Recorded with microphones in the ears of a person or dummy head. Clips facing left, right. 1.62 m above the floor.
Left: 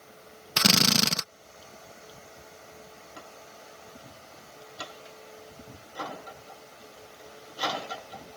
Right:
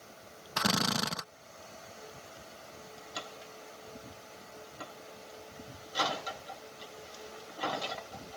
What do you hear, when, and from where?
0.6 s a drill: 45° left (ahead or behind)